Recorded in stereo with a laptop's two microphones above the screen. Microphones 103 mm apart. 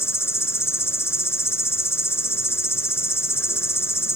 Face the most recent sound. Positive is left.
turn(degrees=25)  # may be behind; listen again after turning